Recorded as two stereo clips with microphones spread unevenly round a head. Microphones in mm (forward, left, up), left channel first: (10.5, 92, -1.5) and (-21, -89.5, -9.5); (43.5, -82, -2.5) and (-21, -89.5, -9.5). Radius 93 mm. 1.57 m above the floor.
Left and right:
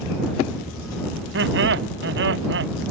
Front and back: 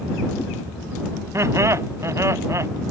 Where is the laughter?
130° right.